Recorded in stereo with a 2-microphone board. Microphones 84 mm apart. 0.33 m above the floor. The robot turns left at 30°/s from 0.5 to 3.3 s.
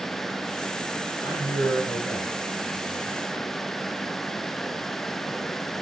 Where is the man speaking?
45° left, 5.5 m; by 3.2 s 15° right, 5.5 m.